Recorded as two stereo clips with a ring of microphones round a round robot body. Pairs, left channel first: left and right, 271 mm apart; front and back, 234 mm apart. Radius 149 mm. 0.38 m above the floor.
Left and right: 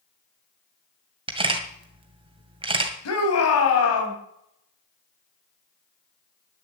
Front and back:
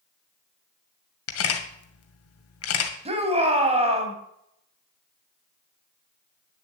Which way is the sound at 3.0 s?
115° left.